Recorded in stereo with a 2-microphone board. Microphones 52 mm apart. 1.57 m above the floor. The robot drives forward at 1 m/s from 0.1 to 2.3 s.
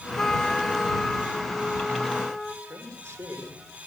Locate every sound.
0.2 s a trumpet: 15° left (ahead or behind), 1.1 m; by 2.5 s 5° left (ahead or behind), 3 m
2.6 s a man speaking: 75° right (ahead or behind), 5.5 m